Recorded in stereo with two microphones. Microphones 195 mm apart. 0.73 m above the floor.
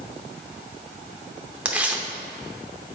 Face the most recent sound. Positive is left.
turn(degrees=-5)  # may be behind; listen again after turning